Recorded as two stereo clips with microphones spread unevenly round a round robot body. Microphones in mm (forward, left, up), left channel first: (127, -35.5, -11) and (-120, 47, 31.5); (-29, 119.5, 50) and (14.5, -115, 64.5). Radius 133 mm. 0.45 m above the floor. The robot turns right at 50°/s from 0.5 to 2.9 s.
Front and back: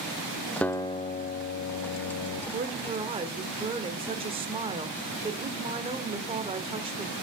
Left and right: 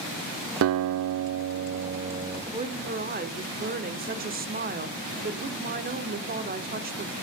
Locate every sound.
0.6 s a guitar: 100° right, 0.6 m; by 2.4 s 10° right, 0.6 m
2.5 s a woman speaking: 145° right, 1.1 m; by 7.1 s 125° right, 1.1 m